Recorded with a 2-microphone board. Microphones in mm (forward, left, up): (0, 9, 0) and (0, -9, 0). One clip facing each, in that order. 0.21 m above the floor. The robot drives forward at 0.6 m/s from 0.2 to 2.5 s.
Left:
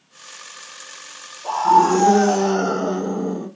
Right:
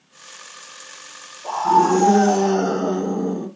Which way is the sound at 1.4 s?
15° left (ahead or behind).